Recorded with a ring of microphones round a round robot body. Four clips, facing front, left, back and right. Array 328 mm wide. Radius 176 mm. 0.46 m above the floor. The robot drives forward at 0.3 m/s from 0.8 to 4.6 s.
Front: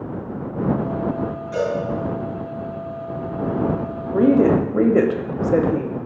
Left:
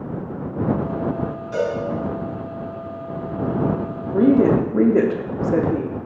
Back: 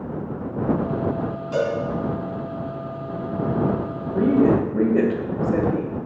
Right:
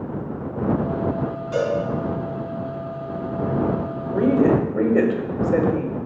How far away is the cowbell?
About 3.5 m.